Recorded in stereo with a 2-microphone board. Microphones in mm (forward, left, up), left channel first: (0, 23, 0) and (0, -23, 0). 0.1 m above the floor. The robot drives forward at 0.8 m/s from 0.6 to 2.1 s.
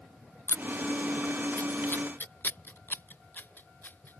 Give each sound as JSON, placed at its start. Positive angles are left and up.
{"t": 0.5, "sound": "scissors", "side_deg": 60}